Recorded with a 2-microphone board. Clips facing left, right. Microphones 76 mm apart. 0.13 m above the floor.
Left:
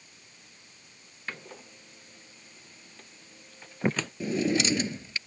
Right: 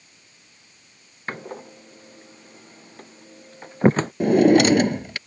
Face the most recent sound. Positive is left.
turn(degrees=-65)  # may be behind; listen again after turning